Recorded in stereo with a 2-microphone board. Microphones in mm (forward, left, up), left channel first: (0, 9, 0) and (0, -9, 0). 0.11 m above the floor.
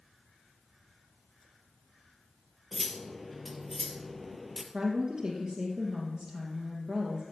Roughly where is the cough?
No cough in this recording.